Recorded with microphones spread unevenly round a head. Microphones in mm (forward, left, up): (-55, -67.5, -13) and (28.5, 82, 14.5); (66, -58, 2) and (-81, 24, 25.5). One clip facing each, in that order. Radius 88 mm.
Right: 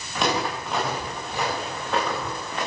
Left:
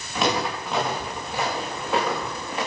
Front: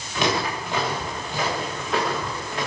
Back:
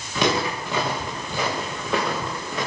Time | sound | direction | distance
0.1 | footsteps | 150° left | 9.5 m